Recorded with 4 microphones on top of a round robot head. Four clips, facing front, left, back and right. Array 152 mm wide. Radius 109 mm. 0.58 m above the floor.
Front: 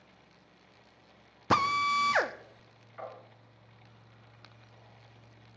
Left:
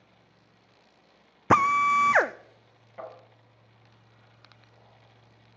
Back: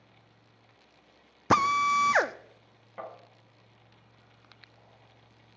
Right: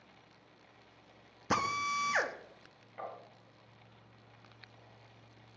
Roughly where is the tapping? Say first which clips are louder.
Left 3 dB, back 1 dB; behind.